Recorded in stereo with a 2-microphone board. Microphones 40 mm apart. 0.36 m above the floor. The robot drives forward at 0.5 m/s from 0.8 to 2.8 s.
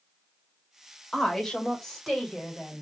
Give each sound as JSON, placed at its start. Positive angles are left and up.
{"t": 1.1, "sound": "a woman speaking", "side_deg": 10, "distance_m": 1.1}